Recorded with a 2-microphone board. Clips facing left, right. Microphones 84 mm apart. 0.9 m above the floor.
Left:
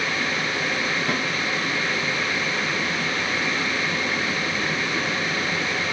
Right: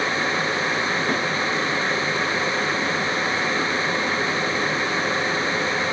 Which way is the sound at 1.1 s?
80° left.